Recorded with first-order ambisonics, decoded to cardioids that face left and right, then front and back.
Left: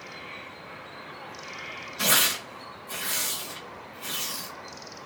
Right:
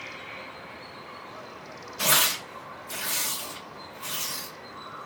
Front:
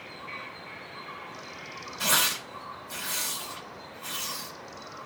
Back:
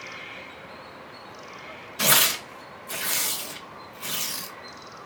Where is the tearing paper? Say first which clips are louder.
Even, back 4 dB; straight behind, 0.8 m.